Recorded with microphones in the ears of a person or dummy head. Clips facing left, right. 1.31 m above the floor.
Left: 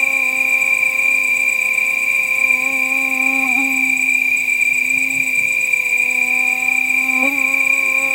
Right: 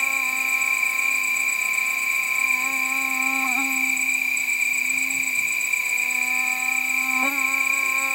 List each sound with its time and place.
0.0 s an insect: 20° left (ahead or behind)